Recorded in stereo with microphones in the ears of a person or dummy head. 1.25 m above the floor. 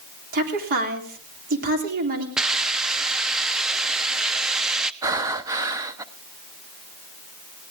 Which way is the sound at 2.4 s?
5° right (ahead or behind).